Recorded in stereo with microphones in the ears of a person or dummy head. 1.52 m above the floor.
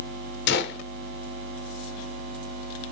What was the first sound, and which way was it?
A gunshot, 65° left (ahead or behind).